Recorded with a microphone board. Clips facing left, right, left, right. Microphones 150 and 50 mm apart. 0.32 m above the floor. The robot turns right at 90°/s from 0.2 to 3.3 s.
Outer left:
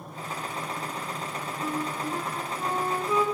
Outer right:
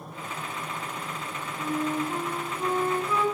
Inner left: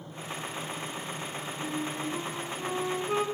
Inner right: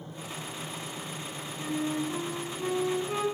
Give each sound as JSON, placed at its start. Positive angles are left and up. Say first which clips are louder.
{"t": 1.6, "sound": "a flute", "louder": "outer right 4 dB, inner right 4 dB", "azimuth_deg": -95, "distance_m": 1.1}